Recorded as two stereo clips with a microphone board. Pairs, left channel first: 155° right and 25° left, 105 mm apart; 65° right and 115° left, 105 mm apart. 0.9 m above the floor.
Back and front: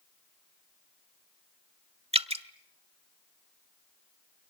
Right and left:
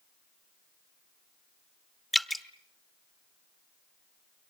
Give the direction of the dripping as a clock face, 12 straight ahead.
11 o'clock.